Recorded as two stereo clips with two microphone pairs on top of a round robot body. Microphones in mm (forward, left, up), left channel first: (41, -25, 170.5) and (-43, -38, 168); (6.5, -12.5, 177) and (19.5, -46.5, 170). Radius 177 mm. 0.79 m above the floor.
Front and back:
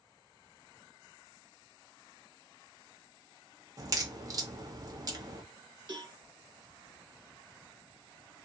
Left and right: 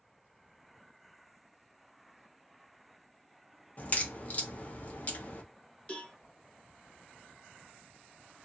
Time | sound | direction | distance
3.8 | a crack | 155° left | 1.2 m
5.9 | a cowbell | straight behind | 1.5 m